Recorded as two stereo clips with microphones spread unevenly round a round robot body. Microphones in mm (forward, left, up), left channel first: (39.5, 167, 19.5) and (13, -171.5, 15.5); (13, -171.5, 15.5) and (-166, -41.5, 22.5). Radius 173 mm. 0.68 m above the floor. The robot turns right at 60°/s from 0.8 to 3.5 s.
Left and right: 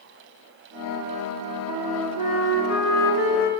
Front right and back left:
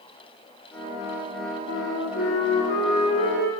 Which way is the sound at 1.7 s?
20° right.